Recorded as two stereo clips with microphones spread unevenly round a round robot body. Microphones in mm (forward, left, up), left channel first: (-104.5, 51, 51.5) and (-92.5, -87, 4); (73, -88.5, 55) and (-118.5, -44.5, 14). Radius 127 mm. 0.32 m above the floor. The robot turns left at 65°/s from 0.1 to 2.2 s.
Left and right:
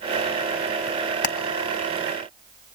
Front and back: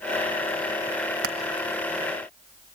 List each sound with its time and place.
1.2 s hammering: 130° left, 1.1 m; by 1.4 s 120° left, 1.1 m